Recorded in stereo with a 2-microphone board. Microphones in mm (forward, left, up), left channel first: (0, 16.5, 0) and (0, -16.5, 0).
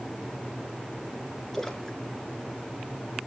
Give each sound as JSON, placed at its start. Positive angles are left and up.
{"t": 1.5, "sound": "a splash", "side_deg": 10, "distance_m": 1.7}